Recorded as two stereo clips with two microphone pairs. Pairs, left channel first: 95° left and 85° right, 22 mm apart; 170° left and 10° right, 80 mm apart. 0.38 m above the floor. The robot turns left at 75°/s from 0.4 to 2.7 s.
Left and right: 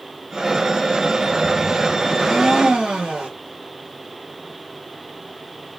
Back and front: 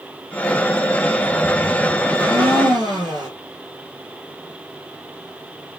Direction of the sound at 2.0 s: 10° left.